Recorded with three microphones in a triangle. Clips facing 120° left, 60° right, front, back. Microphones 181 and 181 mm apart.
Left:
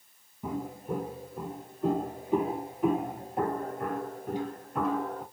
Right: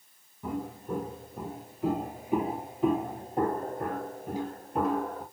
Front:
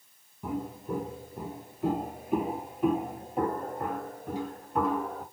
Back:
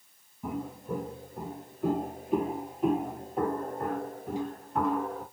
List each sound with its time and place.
0.4 s footsteps: 80° left, 1.3 m; by 5.2 s 85° right, 2 m